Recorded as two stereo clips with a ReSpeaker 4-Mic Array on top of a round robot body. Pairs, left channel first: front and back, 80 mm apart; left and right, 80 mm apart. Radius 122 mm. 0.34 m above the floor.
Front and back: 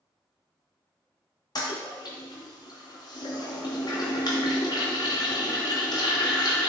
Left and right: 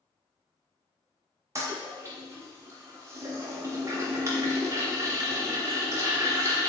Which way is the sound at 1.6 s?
35° right.